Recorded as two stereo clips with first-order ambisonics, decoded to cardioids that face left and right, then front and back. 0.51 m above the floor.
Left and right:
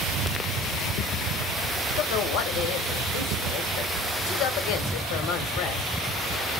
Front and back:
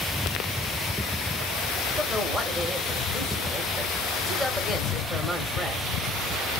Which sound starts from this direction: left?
A woman speaking, at 2.0 s.